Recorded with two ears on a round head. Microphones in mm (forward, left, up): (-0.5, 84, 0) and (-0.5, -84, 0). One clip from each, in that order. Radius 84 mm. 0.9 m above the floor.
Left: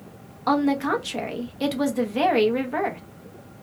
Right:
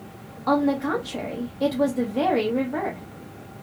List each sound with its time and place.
0.5 s a woman speaking: 60° left (ahead or behind), 0.9 m